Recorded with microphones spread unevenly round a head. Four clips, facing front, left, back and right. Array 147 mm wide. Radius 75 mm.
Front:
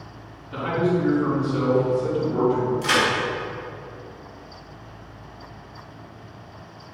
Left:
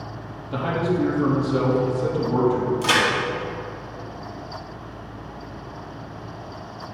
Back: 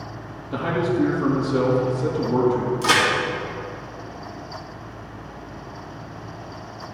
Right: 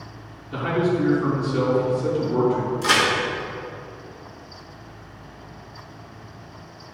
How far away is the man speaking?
About 3 m.